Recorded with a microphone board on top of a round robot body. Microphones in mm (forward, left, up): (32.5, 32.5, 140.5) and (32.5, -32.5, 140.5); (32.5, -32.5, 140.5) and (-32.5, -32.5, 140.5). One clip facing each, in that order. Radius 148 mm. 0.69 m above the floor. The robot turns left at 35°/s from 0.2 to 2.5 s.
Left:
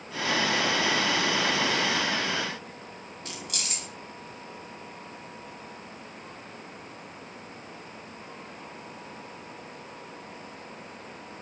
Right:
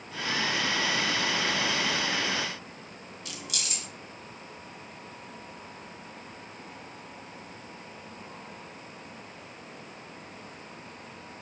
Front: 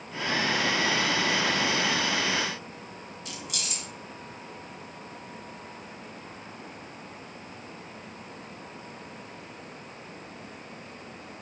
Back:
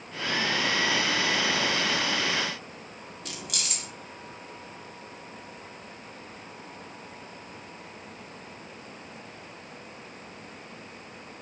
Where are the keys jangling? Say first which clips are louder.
Left 1 dB, back 1 dB; 140° left, 1.4 m.